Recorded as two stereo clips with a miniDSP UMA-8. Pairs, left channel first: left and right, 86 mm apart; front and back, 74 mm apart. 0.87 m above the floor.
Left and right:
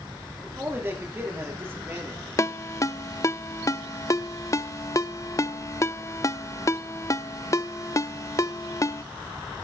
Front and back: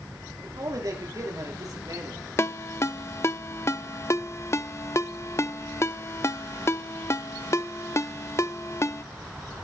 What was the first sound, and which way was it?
A man speaking, 150° right.